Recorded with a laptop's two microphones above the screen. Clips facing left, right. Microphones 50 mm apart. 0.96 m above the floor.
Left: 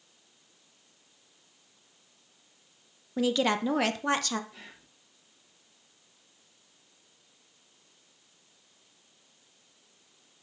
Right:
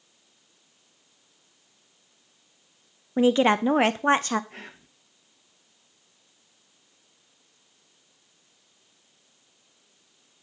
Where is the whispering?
50° right (ahead or behind), 1.1 m.